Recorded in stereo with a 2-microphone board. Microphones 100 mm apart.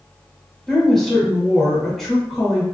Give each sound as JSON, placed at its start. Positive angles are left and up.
{"t": 0.7, "sound": "a woman speaking", "side_deg": 5, "distance_m": 0.9}